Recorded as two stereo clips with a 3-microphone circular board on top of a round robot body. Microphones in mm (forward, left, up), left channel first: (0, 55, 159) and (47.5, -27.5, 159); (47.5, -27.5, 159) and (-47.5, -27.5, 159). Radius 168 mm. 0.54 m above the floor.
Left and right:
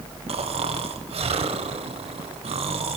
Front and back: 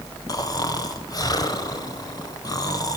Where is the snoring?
50° right, 1.2 m.